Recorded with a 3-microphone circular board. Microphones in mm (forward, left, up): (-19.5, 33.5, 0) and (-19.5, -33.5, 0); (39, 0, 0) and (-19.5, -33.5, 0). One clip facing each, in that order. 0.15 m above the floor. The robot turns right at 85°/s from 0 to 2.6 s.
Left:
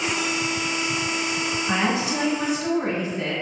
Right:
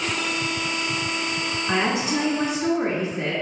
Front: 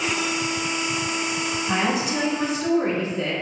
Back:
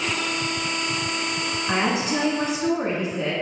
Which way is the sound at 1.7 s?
175° right.